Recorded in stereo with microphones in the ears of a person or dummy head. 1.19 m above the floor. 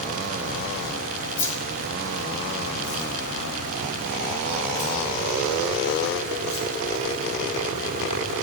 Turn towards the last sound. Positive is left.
turn(degrees=20)  # may be behind; listen again after turning